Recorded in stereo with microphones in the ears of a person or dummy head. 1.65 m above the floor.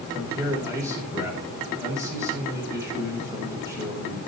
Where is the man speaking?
15° right (ahead or behind), 7 m.